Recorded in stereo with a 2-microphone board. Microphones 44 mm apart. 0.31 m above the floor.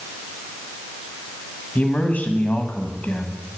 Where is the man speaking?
35° left (ahead or behind), 2 m.